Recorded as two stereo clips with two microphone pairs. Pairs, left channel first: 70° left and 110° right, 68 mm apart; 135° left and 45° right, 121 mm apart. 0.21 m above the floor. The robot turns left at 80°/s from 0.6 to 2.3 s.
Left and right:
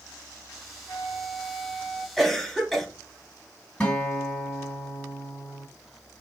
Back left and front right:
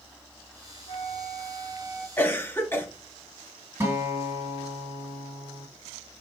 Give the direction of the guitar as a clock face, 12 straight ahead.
12 o'clock.